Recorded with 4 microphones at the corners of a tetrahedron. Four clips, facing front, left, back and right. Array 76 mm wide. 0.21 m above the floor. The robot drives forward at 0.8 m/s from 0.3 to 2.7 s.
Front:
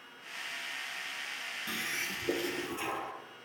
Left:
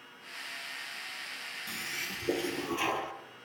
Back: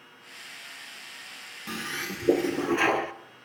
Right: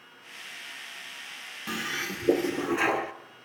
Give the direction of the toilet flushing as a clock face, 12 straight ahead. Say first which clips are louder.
Right 8 dB, back 4 dB; 4 o'clock.